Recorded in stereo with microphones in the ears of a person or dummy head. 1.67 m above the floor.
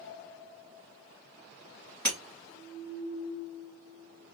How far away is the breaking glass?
About 2 m.